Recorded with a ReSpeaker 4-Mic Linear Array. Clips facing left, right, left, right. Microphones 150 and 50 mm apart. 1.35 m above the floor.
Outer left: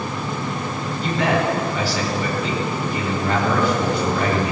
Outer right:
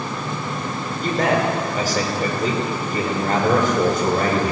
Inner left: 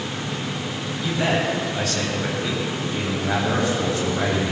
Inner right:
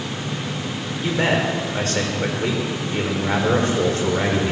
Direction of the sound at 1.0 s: 45° right (ahead or behind).